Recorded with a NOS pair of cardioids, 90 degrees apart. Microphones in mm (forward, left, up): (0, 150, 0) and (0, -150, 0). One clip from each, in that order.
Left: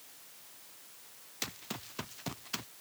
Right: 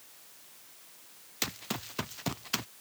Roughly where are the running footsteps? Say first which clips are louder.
Right 5 dB; ahead right.